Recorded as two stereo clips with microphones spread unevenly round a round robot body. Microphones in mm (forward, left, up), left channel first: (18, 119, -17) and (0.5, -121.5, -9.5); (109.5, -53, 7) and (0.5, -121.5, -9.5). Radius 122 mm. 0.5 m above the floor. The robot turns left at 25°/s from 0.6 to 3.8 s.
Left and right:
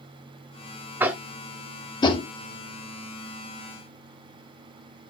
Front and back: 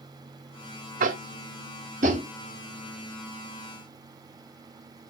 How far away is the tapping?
About 0.5 m.